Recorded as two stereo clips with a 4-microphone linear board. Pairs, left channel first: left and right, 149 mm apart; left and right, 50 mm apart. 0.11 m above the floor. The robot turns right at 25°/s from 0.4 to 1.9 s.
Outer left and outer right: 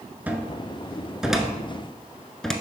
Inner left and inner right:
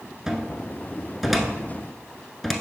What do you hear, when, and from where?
0.3 s a cupboard door: 10° right (ahead or behind), 0.7 m; by 2.5 s 5° left (ahead or behind), 0.7 m